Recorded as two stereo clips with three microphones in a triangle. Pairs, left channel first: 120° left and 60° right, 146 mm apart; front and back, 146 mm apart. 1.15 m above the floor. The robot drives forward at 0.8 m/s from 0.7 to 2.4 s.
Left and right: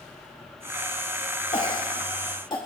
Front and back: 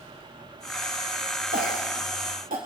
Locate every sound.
1.5 s a cough: 170° left, 2.0 m